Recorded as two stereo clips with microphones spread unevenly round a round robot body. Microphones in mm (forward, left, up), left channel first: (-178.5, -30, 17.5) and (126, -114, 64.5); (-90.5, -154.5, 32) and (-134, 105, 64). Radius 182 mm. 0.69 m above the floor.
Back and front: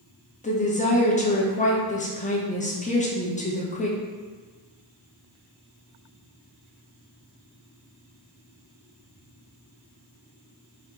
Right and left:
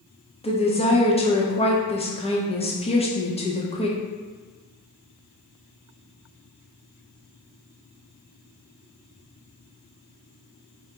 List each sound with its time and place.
0.4 s a woman speaking: 140° right, 1.2 m